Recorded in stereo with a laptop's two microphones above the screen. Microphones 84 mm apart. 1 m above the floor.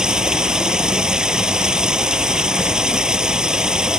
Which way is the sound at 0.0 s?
10° right (ahead or behind).